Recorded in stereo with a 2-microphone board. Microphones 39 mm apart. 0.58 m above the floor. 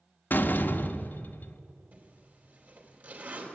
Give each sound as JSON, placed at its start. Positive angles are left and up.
{"t": 0.3, "sound": "a door slam", "side_deg": 55, "distance_m": 0.7}
{"t": 1.9, "sound": "a zipper", "side_deg": -50, "distance_m": 3.0}